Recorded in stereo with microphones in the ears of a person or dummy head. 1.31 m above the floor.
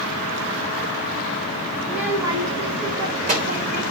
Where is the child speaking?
5° left (ahead or behind), 1.1 m; by 3.8 s 45° right (ahead or behind), 3.5 m.